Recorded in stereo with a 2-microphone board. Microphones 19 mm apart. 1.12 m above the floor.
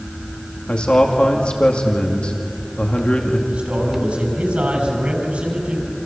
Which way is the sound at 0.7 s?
65° left (ahead or behind).